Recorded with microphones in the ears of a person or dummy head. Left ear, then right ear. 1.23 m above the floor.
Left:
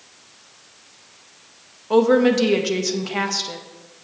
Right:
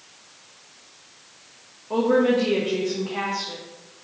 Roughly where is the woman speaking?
Left.